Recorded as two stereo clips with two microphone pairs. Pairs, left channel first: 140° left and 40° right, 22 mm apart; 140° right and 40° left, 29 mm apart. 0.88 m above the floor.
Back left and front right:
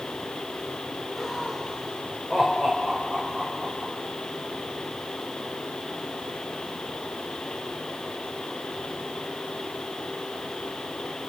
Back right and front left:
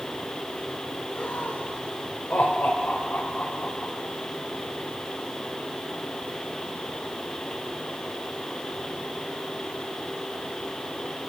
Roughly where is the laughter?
Behind right.